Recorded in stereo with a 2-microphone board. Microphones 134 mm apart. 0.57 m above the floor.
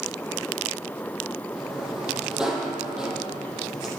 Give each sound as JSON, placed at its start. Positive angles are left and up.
{"t": 1.6, "sound": "a sliding door", "side_deg": -5, "distance_m": 5.5}